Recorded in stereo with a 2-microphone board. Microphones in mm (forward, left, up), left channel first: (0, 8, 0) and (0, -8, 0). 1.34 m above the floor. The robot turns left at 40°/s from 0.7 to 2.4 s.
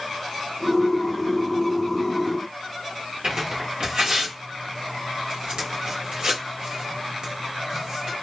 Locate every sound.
3.2 s tearing paper: 65° right (ahead or behind), 1.4 m